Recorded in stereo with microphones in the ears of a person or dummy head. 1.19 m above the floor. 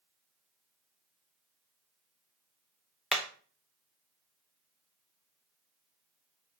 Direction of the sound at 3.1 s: 5° left (ahead or behind).